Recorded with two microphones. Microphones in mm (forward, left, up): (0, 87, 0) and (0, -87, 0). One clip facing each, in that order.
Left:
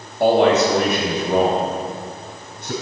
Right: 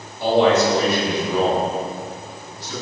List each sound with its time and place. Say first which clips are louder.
0.2 s a man speaking: left 1 dB; 70° left (ahead or behind), 3.5 m; by 2.7 s 65° left (ahead or behind), 4.5 m